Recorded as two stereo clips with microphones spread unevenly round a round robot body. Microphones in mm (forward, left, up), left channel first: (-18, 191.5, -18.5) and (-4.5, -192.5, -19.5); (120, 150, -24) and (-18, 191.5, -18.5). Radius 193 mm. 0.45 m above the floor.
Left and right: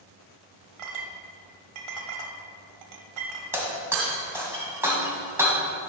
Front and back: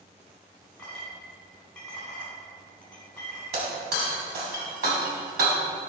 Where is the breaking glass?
170° right, 1.8 m.